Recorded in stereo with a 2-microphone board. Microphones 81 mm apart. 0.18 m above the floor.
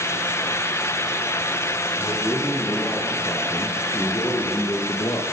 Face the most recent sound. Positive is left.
turn(degrees=60)  # may be behind; listen again after turning